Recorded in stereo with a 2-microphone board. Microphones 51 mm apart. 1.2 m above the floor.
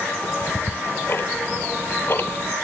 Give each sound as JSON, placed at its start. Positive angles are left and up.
{"t": 0.2, "sound": "ticking", "side_deg": 45, "distance_m": 0.9}